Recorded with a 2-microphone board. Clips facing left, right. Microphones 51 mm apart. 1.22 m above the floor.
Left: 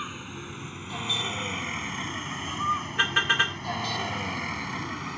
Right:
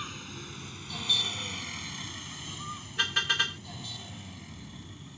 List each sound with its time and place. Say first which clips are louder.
0.0 s a vehicle: left 4 dB; 20° left (ahead or behind); by 5.2 s 80° left
3.0 s a car horn: left 4 dB; 25° left (ahead or behind)